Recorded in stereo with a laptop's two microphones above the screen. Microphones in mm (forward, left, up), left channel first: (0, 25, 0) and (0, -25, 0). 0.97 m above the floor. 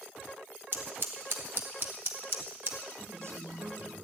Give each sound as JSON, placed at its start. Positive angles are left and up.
{"t": 0.7, "sound": "scissors", "side_deg": -50, "distance_m": 1.2}
{"t": 3.0, "sound": "a man speaking", "side_deg": -70, "distance_m": 2.5}